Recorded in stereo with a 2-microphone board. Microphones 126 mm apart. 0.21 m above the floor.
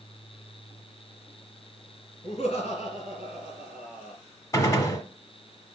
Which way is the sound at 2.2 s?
50° left (ahead or behind).